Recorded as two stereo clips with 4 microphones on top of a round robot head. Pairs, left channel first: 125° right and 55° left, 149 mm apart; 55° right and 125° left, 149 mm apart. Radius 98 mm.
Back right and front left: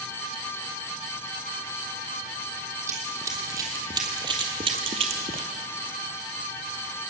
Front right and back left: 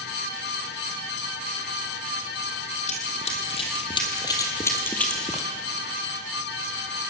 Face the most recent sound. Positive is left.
turn(degrees=35)